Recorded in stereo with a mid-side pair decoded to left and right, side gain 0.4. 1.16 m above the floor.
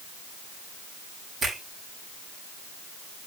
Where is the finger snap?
55° right, 6.5 m.